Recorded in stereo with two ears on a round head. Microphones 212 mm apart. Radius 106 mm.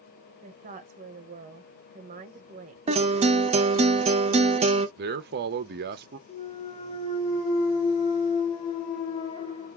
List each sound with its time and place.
0.4 s a woman speaking: 35° right (ahead or behind), 0.8 m
2.9 s a guitar: 25° right (ahead or behind), 0.5 m
5.0 s a man speaking: 45° right (ahead or behind), 0.6 m
6.3 s a clunk: 25° left (ahead or behind), 1.3 m